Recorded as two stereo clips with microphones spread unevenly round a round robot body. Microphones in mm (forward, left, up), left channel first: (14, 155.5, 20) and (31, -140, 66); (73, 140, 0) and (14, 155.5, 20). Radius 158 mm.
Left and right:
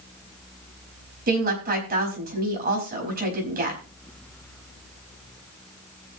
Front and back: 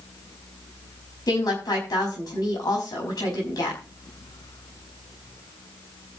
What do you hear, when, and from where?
1.3 s a woman speaking: 25° right, 5 m